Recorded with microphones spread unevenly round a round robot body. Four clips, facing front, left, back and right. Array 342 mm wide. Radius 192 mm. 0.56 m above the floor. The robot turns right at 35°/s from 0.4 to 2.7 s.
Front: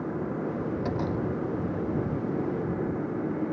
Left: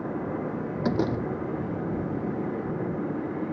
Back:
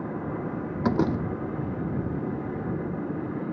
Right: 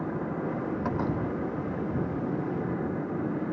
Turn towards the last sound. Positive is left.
turn(degrees=-145)